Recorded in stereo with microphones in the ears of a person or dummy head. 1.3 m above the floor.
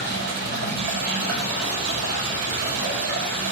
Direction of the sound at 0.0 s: 60° right (ahead or behind).